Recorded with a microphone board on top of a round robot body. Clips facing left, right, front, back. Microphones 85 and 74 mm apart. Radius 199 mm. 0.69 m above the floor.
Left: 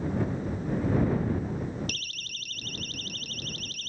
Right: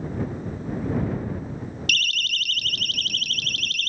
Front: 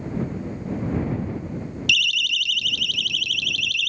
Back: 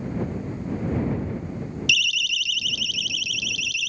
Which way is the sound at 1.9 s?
95° right.